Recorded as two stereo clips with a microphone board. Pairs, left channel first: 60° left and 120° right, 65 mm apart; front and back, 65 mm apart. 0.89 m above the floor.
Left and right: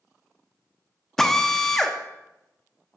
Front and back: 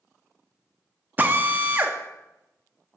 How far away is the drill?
About 0.5 m.